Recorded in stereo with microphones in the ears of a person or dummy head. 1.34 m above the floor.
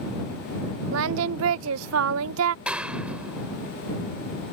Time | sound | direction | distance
0.9 | singing | 80° right | ?
2.6 | a clap | 5° right (ahead or behind) | ?